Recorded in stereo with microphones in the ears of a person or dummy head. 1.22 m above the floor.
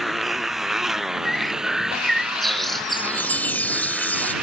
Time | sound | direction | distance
0.0 | a motorcycle | centre (ahead or behind) | ?
1.2 | a bird | centre (ahead or behind) | ?
2.9 | a chime | 15° left (ahead or behind) | ?